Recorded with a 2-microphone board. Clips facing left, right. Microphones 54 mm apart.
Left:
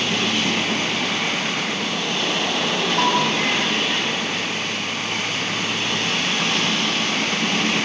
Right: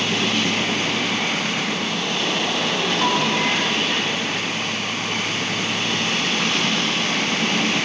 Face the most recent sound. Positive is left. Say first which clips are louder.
# left 2 dB
turn(degrees=75)  # may be behind; listen again after turning